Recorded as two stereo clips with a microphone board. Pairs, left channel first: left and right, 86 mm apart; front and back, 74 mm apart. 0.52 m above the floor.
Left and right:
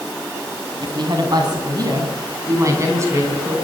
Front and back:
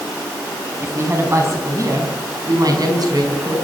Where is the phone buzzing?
No phone buzzing in this recording.